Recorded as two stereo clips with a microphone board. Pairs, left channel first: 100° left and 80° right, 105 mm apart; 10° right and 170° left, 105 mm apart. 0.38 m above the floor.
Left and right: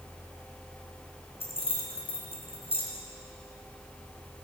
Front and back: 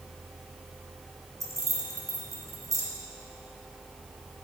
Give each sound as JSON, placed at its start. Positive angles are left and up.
{"t": 1.4, "sound": "keys jangling", "azimuth_deg": 115, "distance_m": 3.0}